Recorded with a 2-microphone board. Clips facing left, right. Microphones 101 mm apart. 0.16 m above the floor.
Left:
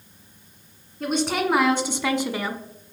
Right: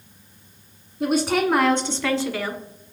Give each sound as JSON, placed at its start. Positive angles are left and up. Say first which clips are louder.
{"t": 1.0, "sound": "a woman speaking", "louder": "right 3 dB", "side_deg": -5, "distance_m": 1.3}